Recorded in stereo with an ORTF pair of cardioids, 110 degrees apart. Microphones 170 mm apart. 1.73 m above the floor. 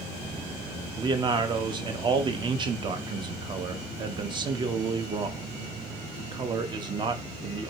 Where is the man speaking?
30° right, 0.5 m.